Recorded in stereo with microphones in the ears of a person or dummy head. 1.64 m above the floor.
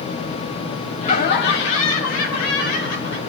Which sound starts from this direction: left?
Laughter, at 1.0 s.